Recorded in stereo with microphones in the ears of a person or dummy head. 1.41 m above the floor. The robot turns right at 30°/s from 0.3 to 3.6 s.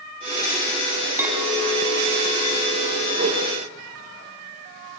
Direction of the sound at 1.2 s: 10° right.